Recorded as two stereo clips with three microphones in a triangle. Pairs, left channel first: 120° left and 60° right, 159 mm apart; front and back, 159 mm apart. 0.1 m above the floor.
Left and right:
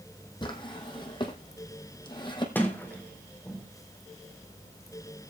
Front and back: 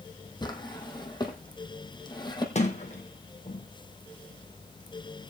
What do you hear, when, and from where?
0.4 s a drawer: 60° left, 2 m
2.5 s a sliding door: 40° left, 2.0 m